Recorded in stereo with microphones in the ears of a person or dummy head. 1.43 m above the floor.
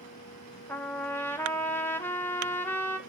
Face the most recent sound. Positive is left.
turn(degrees=15)  # may be behind; listen again after turning